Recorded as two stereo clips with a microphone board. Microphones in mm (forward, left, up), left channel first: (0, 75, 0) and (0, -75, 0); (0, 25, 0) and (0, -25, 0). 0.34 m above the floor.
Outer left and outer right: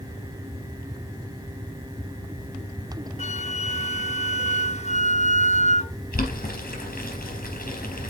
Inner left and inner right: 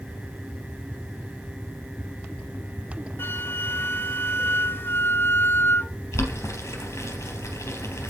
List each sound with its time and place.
3.2 s a flute: 50° left (ahead or behind), 0.5 m
6.1 s boiling: 75° left (ahead or behind), 3 m